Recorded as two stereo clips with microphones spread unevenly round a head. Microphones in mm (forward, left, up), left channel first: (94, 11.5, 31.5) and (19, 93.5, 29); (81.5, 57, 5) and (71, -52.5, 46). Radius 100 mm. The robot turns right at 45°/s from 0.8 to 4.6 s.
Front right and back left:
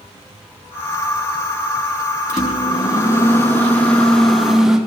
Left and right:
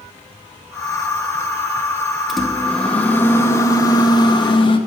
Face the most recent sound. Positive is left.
turn(degrees=50)